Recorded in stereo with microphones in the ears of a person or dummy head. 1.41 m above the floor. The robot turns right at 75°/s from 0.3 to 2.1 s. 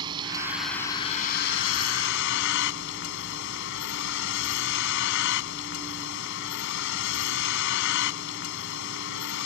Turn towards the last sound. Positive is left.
turn(degrees=110)